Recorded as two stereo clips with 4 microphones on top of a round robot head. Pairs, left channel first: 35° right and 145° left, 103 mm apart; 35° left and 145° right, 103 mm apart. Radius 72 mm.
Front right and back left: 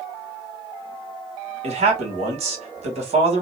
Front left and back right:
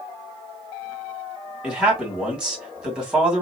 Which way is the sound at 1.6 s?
135° left.